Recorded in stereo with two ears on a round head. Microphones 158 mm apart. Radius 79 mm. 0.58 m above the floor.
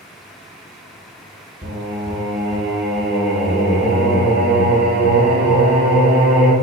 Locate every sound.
1.6 s singing: 40° right (ahead or behind), 2.5 m